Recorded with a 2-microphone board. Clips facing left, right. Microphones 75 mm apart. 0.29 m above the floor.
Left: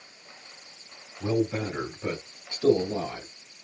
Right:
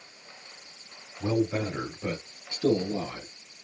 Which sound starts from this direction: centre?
A man speaking, at 1.2 s.